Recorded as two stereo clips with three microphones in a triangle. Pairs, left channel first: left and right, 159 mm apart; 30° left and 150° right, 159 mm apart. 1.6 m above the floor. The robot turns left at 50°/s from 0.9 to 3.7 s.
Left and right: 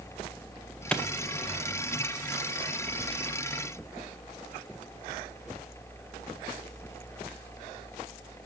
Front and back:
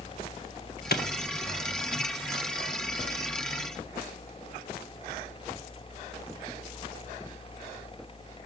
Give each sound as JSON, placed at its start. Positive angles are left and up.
{"t": 0.9, "sound": "a clap", "azimuth_deg": 5, "distance_m": 1.5}